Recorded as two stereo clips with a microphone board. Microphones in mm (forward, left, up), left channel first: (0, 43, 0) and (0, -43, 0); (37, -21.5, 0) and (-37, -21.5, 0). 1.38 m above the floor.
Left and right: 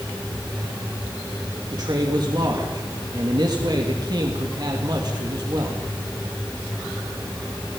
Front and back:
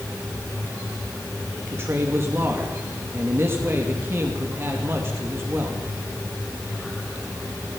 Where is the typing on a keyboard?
No typing on a keyboard in this recording.